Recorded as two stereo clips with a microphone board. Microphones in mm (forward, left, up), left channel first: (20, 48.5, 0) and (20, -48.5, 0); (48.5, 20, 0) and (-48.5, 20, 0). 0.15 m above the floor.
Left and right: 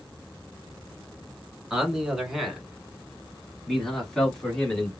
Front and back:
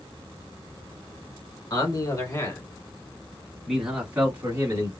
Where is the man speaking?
10° right, 1.5 m; by 4.9 s 165° left, 1.4 m.